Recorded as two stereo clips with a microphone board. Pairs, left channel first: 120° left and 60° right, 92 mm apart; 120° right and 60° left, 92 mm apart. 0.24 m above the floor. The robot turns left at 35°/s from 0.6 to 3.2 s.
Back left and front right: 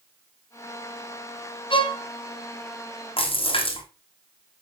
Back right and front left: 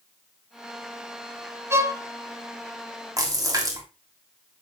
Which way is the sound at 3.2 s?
115° left.